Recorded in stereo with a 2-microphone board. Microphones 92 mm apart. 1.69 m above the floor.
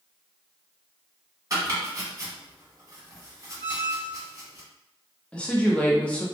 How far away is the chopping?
About 1.7 m.